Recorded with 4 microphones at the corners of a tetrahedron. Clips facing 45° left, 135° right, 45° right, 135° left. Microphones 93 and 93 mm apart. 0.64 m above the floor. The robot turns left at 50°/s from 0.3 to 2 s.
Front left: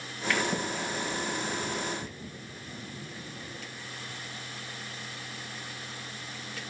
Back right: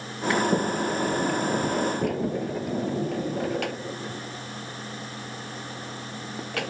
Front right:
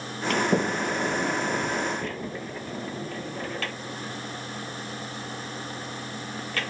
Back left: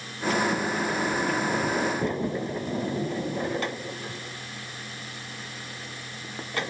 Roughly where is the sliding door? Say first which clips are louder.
Back right 7 dB, front right 2 dB; ahead right.